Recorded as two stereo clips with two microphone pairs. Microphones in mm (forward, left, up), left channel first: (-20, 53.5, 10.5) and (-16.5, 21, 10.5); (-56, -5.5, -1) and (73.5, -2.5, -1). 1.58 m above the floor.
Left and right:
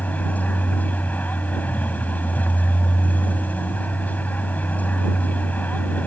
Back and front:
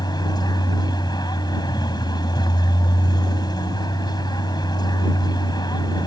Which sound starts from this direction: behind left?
A vehicle, at 0.0 s.